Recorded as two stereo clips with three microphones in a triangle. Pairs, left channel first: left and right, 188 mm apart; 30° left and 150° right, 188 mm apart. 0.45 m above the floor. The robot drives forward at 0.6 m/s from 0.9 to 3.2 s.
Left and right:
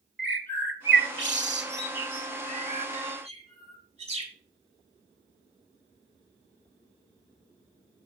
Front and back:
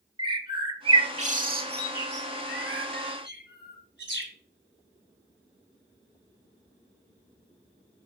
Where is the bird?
85° right, 0.9 m; by 4.3 s 145° right, 1.6 m.